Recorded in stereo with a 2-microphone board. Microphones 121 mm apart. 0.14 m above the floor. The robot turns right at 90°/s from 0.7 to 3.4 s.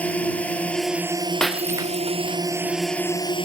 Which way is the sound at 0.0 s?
165° left.